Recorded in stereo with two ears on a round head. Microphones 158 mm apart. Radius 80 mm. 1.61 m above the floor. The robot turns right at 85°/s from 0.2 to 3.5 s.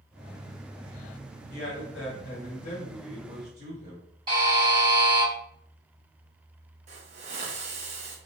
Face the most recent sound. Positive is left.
turn(degrees=-40)  # may be behind; listen again after turning